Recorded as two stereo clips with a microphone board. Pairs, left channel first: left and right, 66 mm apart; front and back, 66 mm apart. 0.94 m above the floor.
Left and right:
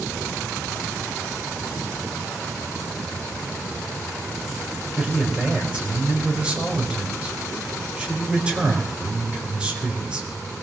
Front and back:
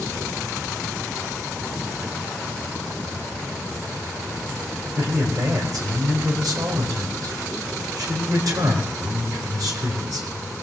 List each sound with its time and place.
5.0 s a man speaking: 160° right, 4.5 m